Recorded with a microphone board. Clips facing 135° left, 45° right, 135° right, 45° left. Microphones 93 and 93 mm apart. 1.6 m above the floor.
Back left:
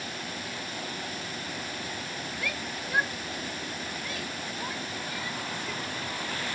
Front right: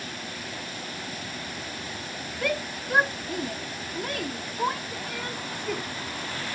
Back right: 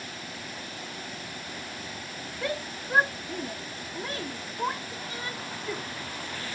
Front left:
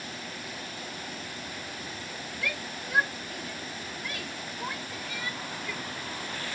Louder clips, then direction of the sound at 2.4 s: Front right 10 dB, back right 5 dB; 80° right.